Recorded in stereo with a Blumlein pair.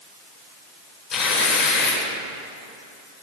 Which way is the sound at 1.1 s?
35° left.